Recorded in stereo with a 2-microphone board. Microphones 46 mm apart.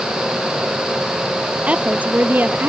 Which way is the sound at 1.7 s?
30° right (ahead or behind).